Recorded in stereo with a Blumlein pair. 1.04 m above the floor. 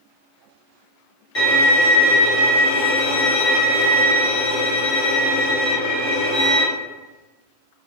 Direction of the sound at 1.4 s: 40° left.